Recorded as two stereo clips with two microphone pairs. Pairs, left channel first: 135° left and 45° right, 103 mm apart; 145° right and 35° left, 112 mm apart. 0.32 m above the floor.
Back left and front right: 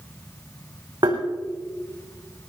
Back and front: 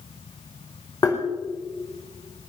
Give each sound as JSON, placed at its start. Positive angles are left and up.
{"t": 1.0, "sound": "tapping", "azimuth_deg": -95, "distance_m": 5.0}